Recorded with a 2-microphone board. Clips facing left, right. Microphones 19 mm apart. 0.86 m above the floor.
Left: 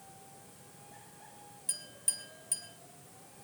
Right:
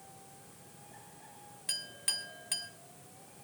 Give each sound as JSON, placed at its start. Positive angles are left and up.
{"t": 1.7, "sound": "a clink", "side_deg": -35, "distance_m": 1.2}